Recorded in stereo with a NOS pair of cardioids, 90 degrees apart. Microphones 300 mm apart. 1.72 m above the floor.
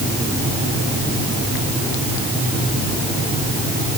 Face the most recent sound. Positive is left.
No sound to turn to.